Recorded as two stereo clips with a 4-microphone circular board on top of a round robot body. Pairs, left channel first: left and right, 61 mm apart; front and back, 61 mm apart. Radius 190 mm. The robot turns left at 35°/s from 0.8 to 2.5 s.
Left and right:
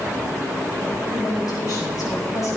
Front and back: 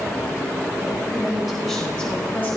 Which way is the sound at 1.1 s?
105° left.